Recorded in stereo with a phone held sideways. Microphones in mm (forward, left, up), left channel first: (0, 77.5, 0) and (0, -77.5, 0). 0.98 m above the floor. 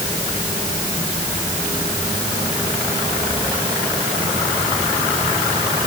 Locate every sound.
Only background noise.